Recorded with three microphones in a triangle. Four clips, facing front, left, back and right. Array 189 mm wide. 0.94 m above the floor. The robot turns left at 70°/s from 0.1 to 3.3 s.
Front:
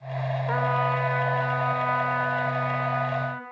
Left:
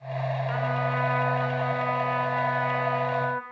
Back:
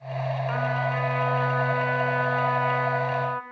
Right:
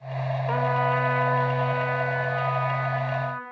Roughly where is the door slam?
No door slam in this recording.